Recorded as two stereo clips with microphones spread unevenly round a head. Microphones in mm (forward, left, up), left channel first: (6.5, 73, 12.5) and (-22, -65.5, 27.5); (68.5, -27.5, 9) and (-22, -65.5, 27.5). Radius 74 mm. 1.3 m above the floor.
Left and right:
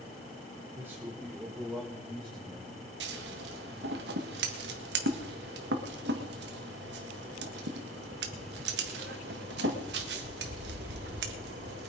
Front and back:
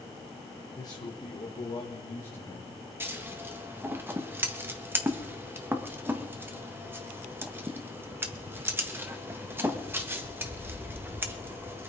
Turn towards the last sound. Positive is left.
turn(degrees=-90)